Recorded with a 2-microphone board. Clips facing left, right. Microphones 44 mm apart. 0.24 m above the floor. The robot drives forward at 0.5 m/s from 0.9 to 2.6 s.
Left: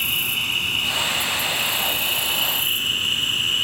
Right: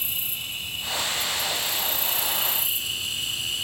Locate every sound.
0.0 s an insect: 65° left (ahead or behind), 0.8 m; by 3.6 s 45° left (ahead or behind), 1.0 m